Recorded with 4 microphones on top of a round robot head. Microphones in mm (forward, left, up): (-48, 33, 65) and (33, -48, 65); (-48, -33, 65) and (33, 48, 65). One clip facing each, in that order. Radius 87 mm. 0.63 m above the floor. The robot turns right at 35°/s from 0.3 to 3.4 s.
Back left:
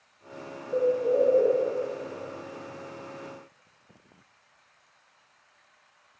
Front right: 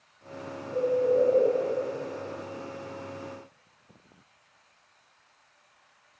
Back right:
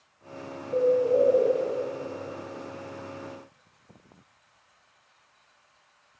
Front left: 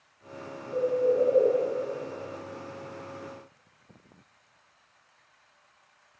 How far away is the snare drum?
No snare drum in this recording.